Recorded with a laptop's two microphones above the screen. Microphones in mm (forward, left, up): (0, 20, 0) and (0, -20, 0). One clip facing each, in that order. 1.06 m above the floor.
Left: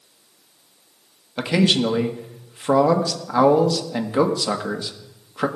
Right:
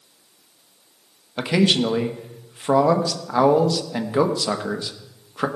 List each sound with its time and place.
1.4 s a man speaking: centre (ahead or behind), 1.3 m